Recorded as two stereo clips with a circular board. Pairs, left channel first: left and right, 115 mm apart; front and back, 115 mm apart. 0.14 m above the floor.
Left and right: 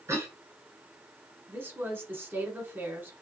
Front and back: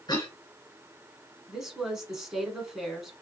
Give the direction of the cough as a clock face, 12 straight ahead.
1 o'clock.